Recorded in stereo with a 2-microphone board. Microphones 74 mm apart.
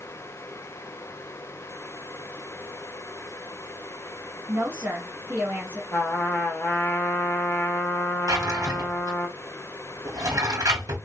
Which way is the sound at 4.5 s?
45° right (ahead or behind).